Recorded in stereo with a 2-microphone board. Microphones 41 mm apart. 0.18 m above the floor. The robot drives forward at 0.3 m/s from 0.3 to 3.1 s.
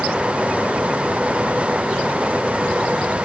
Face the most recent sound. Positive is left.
No sound to turn to.